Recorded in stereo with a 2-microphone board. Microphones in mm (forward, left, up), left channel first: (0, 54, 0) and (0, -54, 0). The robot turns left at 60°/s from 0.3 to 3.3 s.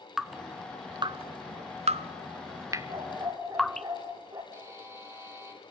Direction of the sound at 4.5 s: 25° right (ahead or behind).